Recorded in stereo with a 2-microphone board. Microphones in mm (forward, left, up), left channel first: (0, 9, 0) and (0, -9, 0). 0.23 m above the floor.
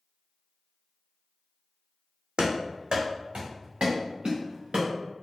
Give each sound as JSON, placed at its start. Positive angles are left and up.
{"t": 2.4, "sound": "running footsteps", "side_deg": -75, "distance_m": 0.8}